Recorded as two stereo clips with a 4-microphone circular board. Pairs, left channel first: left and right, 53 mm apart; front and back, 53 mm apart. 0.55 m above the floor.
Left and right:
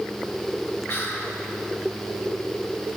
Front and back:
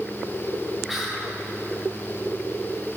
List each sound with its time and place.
0.9 s whispering: 100° left, 1.2 m